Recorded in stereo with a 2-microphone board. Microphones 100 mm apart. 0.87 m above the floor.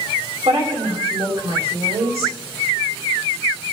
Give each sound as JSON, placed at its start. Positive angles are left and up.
{"t": 0.5, "sound": "a woman speaking", "side_deg": -80, "distance_m": 3.5}